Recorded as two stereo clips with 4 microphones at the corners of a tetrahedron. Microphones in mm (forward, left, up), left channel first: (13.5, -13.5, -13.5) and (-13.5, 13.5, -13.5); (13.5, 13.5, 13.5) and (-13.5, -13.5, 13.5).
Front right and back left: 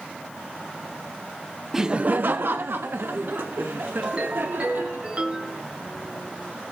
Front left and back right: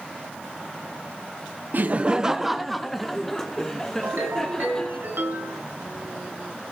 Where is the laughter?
145° right, 0.5 m; by 5.0 s 115° left, 3.5 m.